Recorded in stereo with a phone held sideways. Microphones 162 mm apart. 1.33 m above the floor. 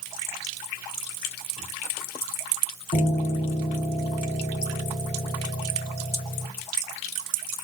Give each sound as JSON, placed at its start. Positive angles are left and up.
{"t": 2.9, "sound": "a piano", "side_deg": 45, "distance_m": 2.5}